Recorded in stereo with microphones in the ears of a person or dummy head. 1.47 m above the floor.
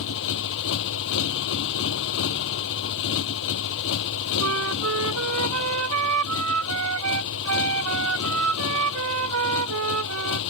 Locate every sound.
0.0 s a motorcycle: 70° left (ahead or behind)
4.4 s a flute: 85° right